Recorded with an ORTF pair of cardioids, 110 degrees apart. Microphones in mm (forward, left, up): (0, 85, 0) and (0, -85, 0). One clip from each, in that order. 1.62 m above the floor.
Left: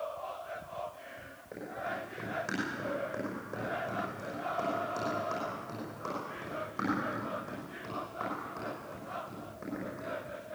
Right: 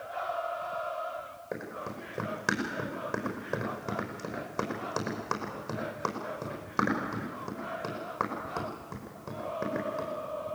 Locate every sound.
1.5 s running footsteps: 60° right, 5.5 m